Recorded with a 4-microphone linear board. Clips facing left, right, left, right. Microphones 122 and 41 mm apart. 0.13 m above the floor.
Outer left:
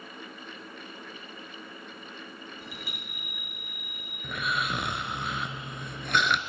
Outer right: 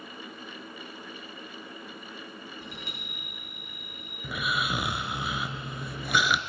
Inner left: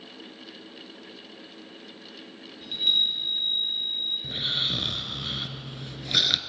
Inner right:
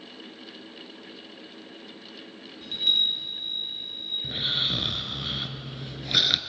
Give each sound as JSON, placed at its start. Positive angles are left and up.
{"t": 2.6, "sound": "a chime", "side_deg": 5, "distance_m": 3.0}
{"t": 4.2, "sound": "snoring", "side_deg": -5, "distance_m": 0.6}